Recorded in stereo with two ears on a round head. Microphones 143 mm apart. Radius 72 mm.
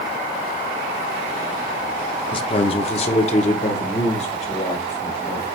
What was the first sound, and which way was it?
A man speaking, 35° left (ahead or behind).